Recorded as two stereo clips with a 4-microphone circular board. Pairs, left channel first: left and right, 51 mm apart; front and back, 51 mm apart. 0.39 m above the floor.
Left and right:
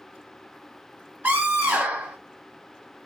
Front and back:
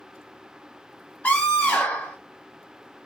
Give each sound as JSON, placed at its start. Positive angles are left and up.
{"t": 1.2, "sound": "a scream", "azimuth_deg": -45, "distance_m": 1.3}